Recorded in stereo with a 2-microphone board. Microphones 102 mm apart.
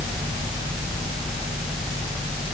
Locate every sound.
Only background noise.